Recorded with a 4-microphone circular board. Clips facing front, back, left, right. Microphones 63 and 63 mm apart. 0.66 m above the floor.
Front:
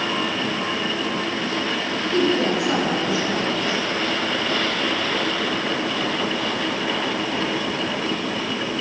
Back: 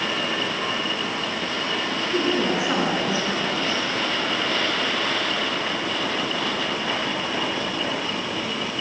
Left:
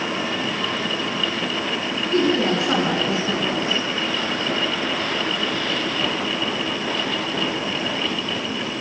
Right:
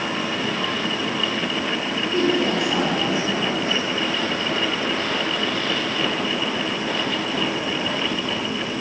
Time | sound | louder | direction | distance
2.1 | a woman speaking | front 3 dB, left 2 dB | 110° left | 9.5 m